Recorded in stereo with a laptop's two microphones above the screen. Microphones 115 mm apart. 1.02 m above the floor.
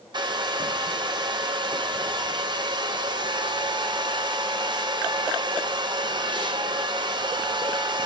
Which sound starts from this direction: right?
A hair dryer, at 0.1 s.